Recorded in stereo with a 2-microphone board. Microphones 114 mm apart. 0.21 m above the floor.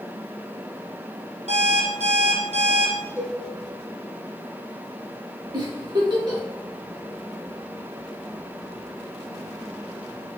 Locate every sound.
1.5 s an alarm clock: 70° right (ahead or behind), 3 m
3.2 s a cowbell: 25° right (ahead or behind), 4 m
5.5 s a giggle: 40° right (ahead or behind), 2.5 m